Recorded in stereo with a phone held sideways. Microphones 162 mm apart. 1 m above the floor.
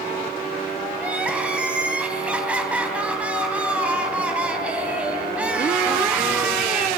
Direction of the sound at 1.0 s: 10° right (ahead or behind).